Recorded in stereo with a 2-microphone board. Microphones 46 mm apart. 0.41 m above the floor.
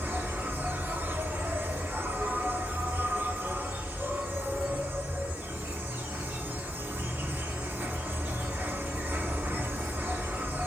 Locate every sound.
0.0 s an insect: 40° right (ahead or behind), 1.0 m